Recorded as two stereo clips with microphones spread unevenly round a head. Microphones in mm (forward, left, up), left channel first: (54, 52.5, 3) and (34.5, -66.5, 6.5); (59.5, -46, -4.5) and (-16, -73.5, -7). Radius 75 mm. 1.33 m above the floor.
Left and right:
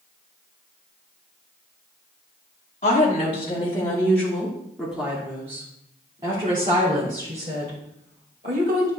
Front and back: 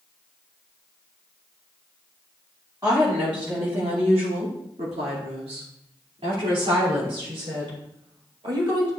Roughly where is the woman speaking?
Behind left.